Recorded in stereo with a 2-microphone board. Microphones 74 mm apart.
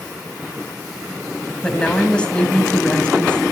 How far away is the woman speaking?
About 3 m.